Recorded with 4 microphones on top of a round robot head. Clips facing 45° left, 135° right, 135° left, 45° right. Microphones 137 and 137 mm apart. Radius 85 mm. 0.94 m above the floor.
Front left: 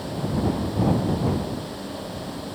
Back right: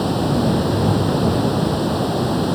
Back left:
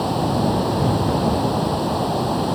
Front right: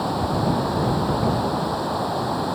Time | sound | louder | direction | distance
0.0 | running water | back right 8 dB, back left 3 dB | 155° right | ?